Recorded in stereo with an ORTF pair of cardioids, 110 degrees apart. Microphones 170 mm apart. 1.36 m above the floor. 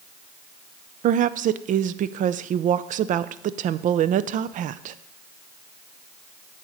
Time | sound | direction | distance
1.0 | a woman speaking | 55° right | 0.5 m